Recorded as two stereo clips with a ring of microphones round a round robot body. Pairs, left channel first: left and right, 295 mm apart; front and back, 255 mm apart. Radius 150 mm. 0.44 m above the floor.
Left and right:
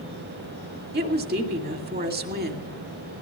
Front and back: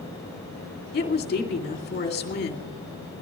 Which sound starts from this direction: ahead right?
A woman speaking, at 0.9 s.